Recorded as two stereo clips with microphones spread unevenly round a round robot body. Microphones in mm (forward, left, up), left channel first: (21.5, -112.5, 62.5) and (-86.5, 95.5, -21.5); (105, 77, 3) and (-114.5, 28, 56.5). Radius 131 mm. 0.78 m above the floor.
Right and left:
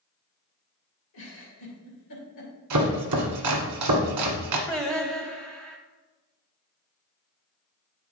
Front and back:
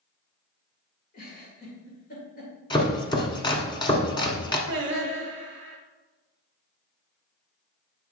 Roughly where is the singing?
Behind right.